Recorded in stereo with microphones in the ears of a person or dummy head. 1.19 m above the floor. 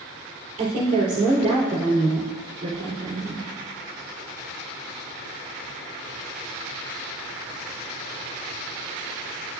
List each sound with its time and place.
0.6 s a woman speaking: 40° right (ahead or behind), 3.5 m